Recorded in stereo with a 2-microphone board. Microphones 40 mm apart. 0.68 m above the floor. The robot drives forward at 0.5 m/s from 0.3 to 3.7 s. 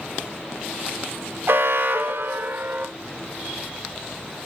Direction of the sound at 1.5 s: 70° right (ahead or behind).